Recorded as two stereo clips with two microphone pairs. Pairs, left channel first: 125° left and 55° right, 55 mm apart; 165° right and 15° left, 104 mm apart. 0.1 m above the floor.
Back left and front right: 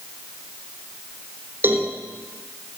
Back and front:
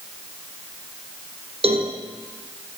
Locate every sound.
1.6 s a cowbell: straight ahead, 4 m